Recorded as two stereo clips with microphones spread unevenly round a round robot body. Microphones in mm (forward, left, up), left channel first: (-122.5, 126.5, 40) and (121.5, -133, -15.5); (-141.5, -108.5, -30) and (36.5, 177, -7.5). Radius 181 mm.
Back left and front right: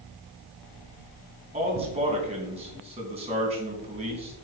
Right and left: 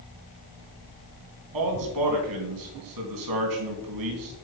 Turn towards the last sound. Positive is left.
turn(degrees=20)